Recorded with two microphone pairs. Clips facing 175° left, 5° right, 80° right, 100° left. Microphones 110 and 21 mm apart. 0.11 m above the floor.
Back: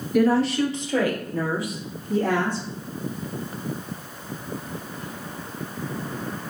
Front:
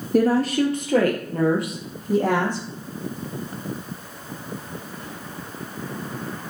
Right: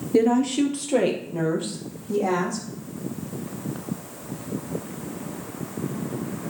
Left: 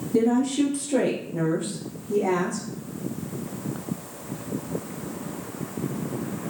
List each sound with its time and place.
0.1 s a woman speaking: 35° right, 2 m; by 2.6 s 25° right, 5 m